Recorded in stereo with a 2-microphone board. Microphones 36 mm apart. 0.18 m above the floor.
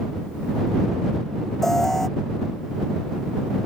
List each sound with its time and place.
1.6 s an alarm: 10° left (ahead or behind)